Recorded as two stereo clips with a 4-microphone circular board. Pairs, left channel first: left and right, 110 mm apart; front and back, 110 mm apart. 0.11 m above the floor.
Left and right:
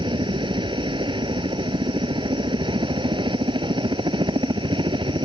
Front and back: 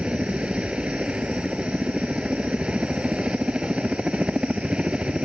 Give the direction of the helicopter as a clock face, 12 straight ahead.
3 o'clock.